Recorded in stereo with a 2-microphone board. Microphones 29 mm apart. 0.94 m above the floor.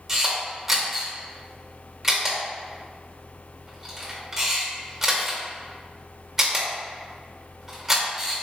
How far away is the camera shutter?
About 1.2 m.